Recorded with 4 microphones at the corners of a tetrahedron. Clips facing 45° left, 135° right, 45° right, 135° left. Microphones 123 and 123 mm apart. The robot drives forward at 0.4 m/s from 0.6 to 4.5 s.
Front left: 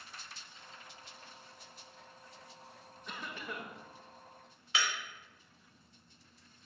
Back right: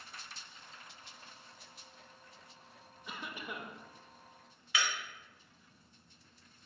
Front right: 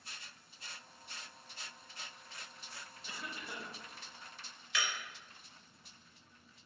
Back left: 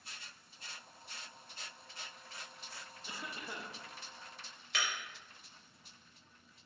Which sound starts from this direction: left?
Breaking glass, at 4.7 s.